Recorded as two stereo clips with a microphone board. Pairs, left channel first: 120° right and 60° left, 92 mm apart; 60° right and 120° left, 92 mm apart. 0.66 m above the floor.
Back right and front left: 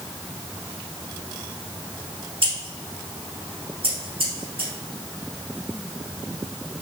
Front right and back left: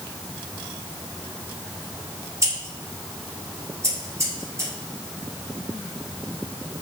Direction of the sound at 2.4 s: 65° left.